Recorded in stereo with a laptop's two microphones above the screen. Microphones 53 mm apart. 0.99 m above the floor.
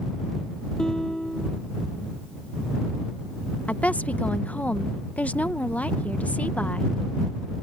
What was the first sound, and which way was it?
A guitar, 15° left (ahead or behind).